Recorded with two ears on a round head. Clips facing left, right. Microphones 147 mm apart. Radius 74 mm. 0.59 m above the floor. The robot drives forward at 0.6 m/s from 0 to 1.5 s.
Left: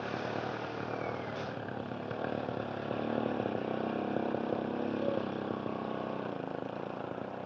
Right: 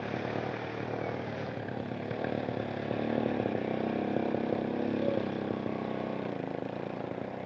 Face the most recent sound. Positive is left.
turn(degrees=-15)  # may be behind; listen again after turning